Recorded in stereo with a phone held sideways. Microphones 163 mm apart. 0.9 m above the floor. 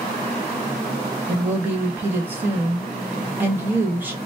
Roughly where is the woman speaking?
Centre.